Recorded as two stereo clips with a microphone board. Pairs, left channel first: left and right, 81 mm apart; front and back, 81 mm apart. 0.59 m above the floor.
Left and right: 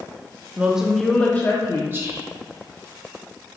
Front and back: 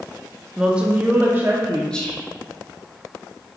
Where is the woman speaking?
110° right, 0.5 m; by 1.8 s 125° left, 0.8 m.